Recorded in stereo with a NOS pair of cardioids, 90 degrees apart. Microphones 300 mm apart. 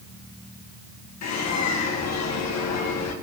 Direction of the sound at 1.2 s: 60° left.